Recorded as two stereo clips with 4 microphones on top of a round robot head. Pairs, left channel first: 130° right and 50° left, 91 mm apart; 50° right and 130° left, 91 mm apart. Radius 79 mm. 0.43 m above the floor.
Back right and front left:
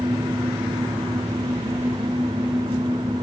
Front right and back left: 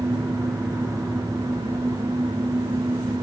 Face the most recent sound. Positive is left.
No sound to turn to.